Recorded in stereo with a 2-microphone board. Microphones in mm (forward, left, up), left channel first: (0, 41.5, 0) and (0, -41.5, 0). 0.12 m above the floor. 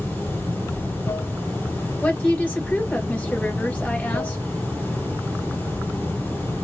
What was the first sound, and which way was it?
Running water, 25° left (ahead or behind).